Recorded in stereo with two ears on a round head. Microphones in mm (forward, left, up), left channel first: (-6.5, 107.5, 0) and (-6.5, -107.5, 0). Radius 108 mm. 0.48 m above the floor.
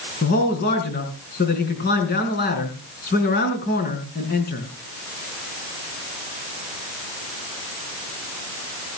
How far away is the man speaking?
About 4.5 m.